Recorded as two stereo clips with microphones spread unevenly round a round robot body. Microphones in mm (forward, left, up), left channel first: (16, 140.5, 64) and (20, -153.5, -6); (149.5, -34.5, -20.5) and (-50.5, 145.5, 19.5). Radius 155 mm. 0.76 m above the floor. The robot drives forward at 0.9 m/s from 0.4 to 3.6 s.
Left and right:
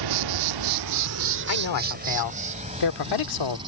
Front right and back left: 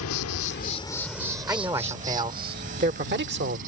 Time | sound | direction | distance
0.0 | an insect | 90° right | ?
1.5 | a man speaking | 60° left | ?